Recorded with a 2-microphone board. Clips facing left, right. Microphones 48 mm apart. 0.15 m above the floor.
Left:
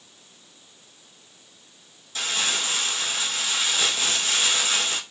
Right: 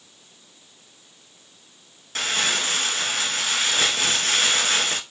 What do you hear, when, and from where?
2.1 s crumpling: 60° right (ahead or behind), 0.6 m